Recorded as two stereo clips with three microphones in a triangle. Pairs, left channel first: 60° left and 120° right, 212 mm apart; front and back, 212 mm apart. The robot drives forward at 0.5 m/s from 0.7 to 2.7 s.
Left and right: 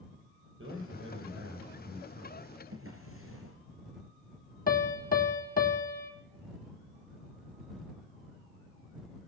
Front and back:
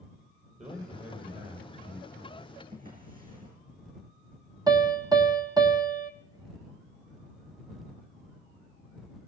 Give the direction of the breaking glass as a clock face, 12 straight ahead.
I don't hear breaking glass.